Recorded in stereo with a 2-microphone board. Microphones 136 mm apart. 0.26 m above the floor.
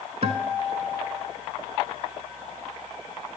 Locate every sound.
0.2 s a guitar: 55° right (ahead or behind), 0.6 m